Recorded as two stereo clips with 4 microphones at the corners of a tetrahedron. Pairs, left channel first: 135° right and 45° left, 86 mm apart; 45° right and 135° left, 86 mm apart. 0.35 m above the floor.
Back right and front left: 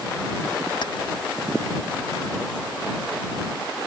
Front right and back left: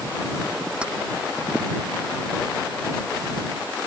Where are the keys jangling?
150° right.